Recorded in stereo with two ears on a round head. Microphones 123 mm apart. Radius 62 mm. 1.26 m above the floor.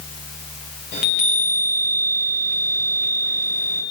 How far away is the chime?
About 3.5 m.